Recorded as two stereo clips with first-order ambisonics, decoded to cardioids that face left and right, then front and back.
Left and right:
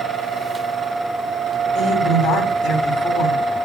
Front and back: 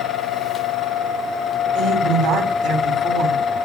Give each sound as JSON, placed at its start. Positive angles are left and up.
{"t": 1.8, "sound": "a woman speaking", "azimuth_deg": 145, "distance_m": 5.0}